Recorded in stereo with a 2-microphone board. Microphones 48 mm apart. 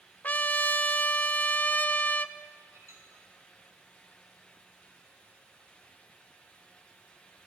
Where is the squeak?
75° right (ahead or behind), 4.5 m.